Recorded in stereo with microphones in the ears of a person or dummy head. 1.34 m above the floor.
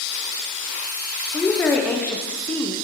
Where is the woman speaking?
5° left (ahead or behind), 0.6 m.